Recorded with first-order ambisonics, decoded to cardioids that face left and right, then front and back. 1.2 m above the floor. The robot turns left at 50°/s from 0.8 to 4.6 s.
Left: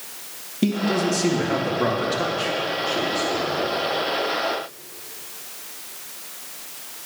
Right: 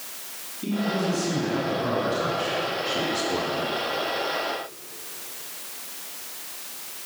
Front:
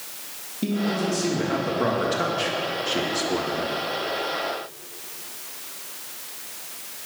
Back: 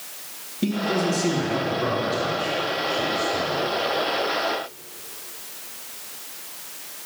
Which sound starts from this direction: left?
A man speaking, at 0.6 s.